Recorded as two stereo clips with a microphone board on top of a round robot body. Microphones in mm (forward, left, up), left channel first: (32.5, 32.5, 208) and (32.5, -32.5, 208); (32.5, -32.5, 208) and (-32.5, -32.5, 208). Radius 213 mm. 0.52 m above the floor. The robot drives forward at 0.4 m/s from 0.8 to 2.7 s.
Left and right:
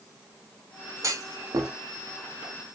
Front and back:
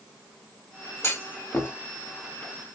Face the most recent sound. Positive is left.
turn(degrees=-85)